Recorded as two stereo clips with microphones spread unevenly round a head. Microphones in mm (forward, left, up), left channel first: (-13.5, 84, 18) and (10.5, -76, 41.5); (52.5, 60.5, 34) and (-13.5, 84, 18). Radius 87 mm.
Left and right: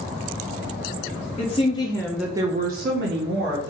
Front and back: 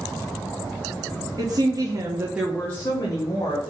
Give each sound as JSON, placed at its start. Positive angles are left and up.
{"t": 1.4, "sound": "a woman speaking", "azimuth_deg": 145, "distance_m": 1.1}